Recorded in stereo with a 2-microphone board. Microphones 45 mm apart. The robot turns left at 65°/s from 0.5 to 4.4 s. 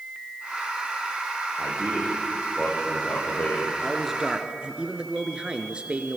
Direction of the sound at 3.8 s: 10° left.